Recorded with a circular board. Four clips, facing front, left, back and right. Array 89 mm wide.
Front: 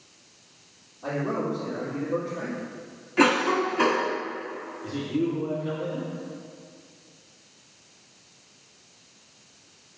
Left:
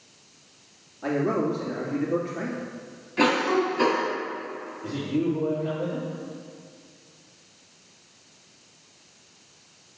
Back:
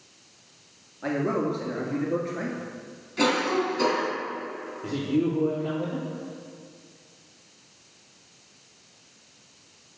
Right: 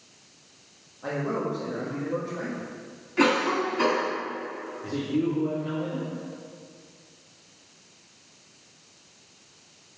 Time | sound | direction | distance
1.0 | a man speaking | 155° left | 2.5 m
3.2 | a cough | 5° right | 1.7 m
4.8 | a man speaking | 175° left | 3 m